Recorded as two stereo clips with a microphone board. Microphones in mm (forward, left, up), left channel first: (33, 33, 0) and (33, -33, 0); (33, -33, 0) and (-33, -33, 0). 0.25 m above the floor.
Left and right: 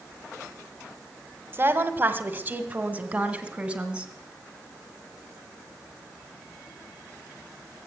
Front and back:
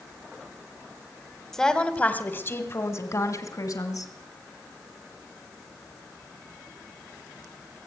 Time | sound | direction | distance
1.5 | a woman speaking | 80° right | 1.4 m